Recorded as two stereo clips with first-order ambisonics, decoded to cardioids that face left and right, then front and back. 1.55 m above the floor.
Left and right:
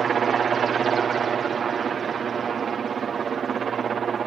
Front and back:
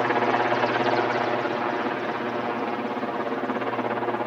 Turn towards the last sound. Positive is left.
turn(degrees=-90)